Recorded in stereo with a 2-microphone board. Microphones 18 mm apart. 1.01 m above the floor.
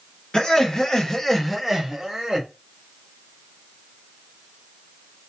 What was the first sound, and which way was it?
Laughter, 35° left (ahead or behind).